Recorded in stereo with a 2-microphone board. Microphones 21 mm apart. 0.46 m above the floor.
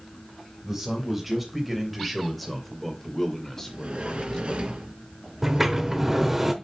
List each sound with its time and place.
0.6 s a man speaking: 10° right (ahead or behind), 3 m; by 4.6 s 40° left (ahead or behind), 1.9 m
3.6 s a sliding door: 70° right (ahead or behind), 3 m
5.4 s a sliding door: 15° right (ahead or behind), 1.0 m